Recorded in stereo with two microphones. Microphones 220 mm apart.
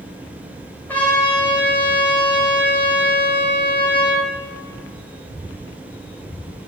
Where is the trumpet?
10° left (ahead or behind), 1.5 m.